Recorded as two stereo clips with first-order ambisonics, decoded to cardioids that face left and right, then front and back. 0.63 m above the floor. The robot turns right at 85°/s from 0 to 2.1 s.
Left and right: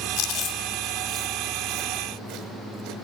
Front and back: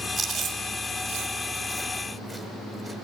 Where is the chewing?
115° left, 1.1 m; by 3.0 s 80° right, 1.1 m.